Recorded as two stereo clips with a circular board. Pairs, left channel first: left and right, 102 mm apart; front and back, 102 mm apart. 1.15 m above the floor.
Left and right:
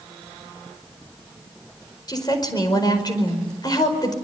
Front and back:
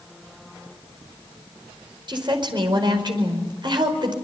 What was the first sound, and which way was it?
A woman speaking, 140° left.